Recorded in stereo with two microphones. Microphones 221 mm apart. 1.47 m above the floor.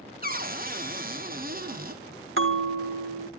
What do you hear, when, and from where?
0.2 s a cupboard door: 40° right (ahead or behind), 1.3 m
2.4 s a bell: 65° right (ahead or behind), 1.3 m